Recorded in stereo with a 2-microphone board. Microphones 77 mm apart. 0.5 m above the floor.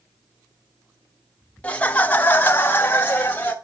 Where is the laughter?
15° left (ahead or behind), 0.9 m; by 3.5 s 20° left (ahead or behind), 1.1 m.